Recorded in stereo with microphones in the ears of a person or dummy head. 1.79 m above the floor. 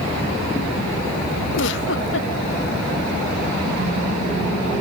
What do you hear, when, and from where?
1.5 s a giggle: 75° left (ahead or behind)